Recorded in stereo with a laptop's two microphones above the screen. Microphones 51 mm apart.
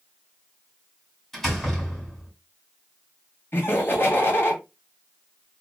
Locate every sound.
1.3 s a door slam: 10° left (ahead or behind), 3 m
3.5 s laughter: 45° left (ahead or behind), 1.9 m